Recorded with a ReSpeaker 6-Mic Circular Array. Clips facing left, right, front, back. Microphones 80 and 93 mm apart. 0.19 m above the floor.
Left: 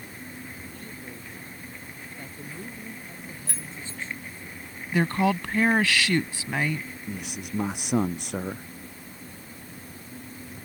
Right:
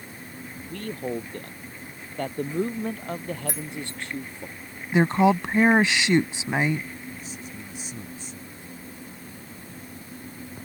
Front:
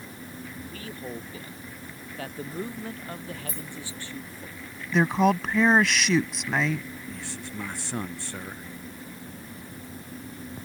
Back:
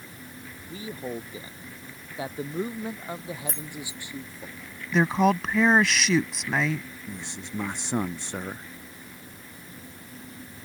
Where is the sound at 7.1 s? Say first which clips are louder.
Left 3 dB, even; 110° left.